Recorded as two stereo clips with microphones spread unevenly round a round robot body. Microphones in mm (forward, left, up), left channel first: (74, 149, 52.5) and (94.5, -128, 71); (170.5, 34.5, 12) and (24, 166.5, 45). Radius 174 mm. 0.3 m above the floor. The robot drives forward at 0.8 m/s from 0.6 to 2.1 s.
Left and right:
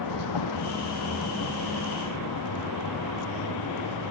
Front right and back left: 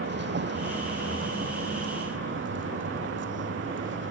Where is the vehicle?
110° left; by 4.1 s 120° left.